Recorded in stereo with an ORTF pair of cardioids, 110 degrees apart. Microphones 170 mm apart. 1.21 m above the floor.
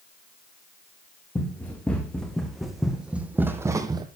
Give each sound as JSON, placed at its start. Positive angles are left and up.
{"t": 1.4, "sound": "running footsteps", "azimuth_deg": 10, "distance_m": 4.0}